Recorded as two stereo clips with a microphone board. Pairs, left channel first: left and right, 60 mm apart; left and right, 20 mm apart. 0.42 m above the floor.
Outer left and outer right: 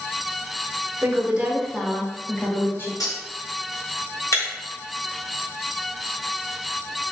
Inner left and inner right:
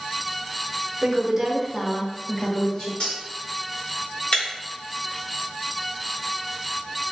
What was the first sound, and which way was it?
A woman speaking, 35° right (ahead or behind).